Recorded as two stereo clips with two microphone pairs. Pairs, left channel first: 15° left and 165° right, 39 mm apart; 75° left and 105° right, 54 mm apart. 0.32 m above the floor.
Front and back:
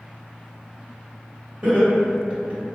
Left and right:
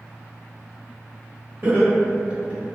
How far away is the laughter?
About 1.2 m.